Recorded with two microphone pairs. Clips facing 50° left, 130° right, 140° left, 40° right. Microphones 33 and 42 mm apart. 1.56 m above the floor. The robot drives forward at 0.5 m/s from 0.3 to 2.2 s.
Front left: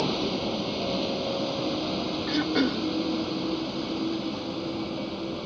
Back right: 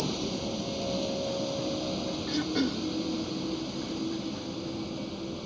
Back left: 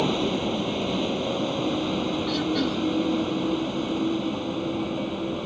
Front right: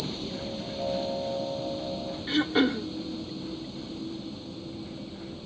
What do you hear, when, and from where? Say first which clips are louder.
0.0 s a vehicle: front left 5 dB, back left 11 dB; 110° left; by 5.5 s 115° left
2.3 s throat clearing: front left 4 dB, front right 6 dB; straight ahead